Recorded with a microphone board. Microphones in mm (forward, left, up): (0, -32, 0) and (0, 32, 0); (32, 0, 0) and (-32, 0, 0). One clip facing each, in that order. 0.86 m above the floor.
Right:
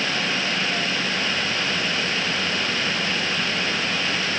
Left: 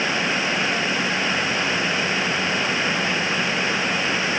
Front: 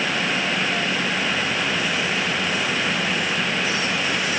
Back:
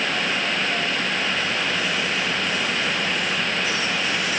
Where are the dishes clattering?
I don't hear dishes clattering.